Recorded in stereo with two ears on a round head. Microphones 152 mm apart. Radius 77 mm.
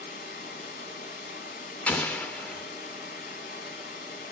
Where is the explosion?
10° left (ahead or behind), 0.6 m.